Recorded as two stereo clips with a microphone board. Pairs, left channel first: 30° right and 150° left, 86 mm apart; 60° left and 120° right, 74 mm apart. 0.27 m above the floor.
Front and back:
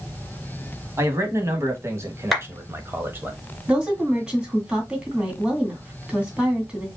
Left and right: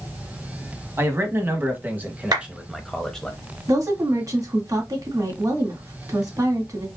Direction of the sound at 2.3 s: 120° right.